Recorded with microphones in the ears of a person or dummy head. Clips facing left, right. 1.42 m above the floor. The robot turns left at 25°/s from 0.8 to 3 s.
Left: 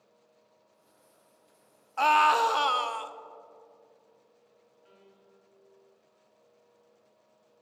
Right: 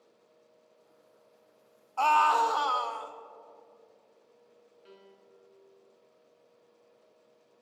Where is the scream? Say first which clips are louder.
Left 1 dB; 20° left (ahead or behind), 0.5 m; by 3.1 s 45° left (ahead or behind), 0.5 m.